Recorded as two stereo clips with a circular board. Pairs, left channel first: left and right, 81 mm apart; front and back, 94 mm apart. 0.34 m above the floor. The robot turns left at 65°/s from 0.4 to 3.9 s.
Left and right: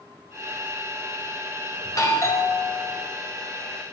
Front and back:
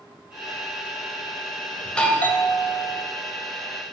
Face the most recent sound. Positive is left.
turn(degrees=-50)